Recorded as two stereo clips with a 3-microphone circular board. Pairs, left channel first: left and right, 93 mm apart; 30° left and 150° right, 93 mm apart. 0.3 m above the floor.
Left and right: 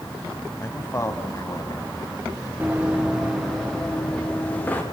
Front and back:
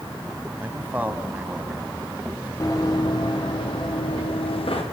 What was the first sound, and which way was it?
A man speaking, 140° left.